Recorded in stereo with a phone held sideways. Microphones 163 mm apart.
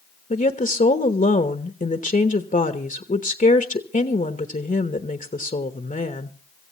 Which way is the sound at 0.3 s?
55° left (ahead or behind).